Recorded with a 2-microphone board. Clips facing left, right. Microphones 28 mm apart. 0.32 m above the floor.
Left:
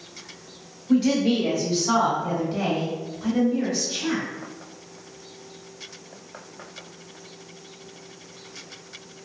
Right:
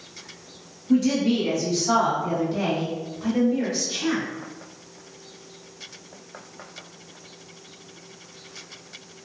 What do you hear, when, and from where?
0.9 s a woman speaking: 45° left (ahead or behind), 1.6 m; by 4.2 s 10° right (ahead or behind), 1.6 m